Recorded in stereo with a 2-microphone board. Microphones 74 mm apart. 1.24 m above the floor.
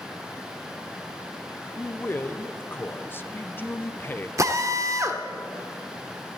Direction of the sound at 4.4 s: 45° right (ahead or behind).